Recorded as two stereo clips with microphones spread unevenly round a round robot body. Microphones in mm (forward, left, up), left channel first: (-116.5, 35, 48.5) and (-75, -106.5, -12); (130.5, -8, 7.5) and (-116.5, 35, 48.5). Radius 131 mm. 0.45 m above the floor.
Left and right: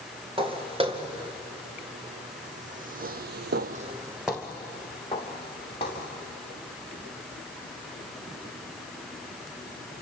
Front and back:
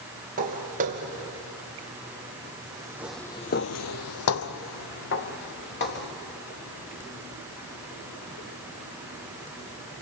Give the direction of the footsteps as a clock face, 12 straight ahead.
4 o'clock.